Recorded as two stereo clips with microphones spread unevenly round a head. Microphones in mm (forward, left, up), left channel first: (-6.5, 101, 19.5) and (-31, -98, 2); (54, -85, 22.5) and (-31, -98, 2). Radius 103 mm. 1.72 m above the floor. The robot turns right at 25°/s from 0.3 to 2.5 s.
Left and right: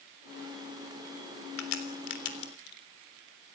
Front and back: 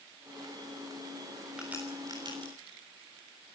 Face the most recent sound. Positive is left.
turn(degrees=120)